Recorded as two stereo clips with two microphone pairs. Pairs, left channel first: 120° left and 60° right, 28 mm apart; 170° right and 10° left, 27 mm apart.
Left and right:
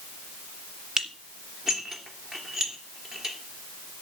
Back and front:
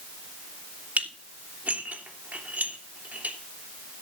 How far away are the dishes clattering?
About 3 m.